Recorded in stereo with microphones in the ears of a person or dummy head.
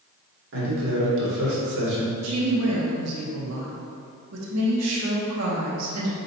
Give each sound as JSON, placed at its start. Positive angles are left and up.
{"t": 0.5, "sound": "a man speaking", "side_deg": -65, "distance_m": 1.5}
{"t": 2.2, "sound": "a woman speaking", "side_deg": -80, "distance_m": 0.8}